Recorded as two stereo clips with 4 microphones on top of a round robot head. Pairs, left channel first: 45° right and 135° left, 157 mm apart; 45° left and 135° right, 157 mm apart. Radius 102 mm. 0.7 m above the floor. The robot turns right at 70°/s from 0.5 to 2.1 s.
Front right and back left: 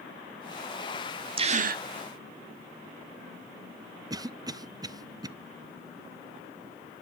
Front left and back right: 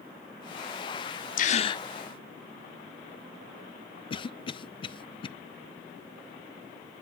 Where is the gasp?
80° left, 0.9 m; by 1.8 s 115° left, 0.9 m.